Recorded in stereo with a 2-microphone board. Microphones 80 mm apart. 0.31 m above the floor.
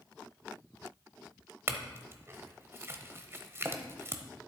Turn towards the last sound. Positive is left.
turn(degrees=-30)  # may be behind; listen again after turning